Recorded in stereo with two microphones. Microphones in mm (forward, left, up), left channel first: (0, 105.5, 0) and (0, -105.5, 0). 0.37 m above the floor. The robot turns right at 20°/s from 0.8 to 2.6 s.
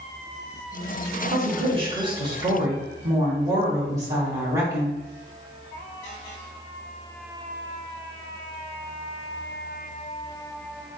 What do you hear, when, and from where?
1.3 s a woman speaking: 30° right (ahead or behind), 1.4 m; by 5.0 s 15° right (ahead or behind), 1.4 m